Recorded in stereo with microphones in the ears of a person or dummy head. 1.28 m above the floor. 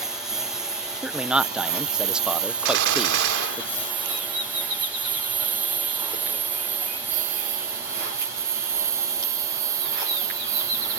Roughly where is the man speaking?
Centre.